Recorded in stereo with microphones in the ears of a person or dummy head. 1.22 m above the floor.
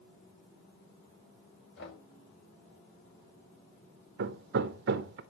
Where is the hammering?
65° right (ahead or behind), 0.7 m.